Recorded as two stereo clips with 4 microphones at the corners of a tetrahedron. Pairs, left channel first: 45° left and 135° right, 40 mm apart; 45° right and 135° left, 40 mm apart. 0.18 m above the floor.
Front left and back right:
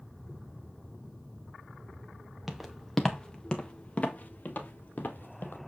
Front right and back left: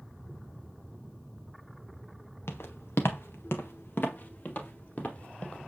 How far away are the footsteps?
About 1.4 m.